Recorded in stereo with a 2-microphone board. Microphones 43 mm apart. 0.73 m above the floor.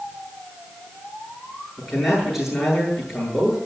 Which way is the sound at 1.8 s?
Centre (ahead or behind).